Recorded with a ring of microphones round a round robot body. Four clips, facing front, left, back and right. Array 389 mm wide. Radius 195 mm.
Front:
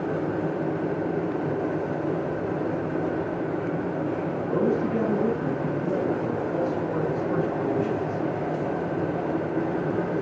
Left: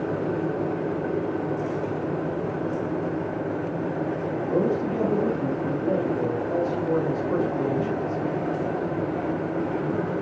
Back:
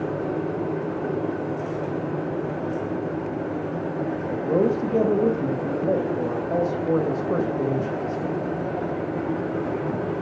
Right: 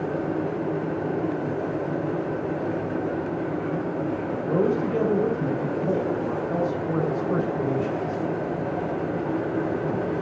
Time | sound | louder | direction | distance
4.3 | a man speaking | right 1 dB, back 4 dB | 170° right | 2 m